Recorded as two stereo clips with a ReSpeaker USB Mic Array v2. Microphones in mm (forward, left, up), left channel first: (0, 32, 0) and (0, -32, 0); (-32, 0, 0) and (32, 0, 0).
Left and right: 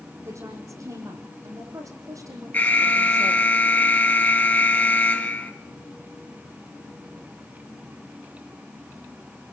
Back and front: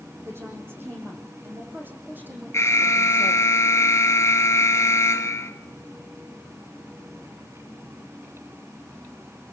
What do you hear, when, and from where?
0.2 s a woman speaking: 50° right, 8.5 m; by 3.4 s 65° right, 7.5 m
2.5 s an alarm: 145° left, 2 m